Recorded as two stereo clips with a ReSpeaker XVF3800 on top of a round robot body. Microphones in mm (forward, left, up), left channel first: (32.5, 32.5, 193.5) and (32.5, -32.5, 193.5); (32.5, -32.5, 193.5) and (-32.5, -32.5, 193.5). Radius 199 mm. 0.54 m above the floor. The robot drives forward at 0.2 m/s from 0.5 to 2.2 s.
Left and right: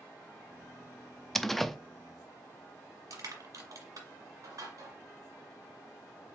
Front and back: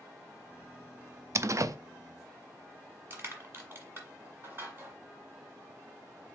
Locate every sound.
1.4 s a door slam: 170° left, 0.5 m; by 1.8 s 175° left, 0.6 m
3.1 s crushing: 120° right, 1.5 m